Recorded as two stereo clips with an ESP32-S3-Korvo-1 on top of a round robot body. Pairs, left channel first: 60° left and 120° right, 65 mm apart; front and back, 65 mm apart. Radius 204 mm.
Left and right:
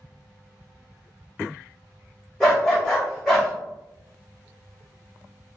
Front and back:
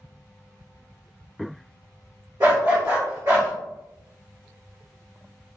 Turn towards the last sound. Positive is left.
turn(degrees=150)